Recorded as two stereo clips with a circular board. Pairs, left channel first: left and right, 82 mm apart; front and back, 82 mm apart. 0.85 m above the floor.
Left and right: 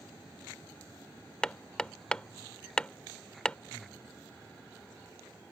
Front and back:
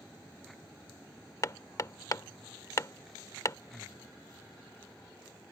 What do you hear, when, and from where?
1.4 s hammering: 20° left
3.7 s breathing: 125° left